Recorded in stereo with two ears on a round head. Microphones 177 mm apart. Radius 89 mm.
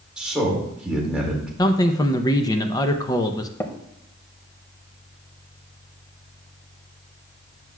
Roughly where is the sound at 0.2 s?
Centre.